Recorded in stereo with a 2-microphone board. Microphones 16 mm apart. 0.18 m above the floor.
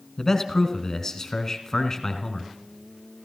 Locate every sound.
0.2 s a man speaking: 35° left (ahead or behind), 1.7 m